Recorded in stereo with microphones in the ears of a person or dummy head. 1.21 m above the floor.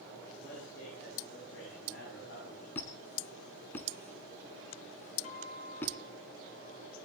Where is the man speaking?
90° left, 8 m.